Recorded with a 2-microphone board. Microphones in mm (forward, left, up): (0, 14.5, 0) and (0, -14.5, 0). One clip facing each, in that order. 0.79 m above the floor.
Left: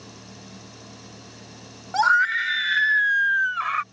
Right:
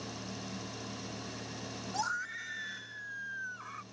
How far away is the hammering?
No hammering in this recording.